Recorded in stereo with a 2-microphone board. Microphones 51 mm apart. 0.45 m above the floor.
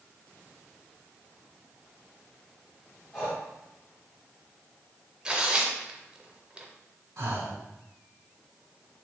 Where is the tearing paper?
15° right (ahead or behind), 0.5 m.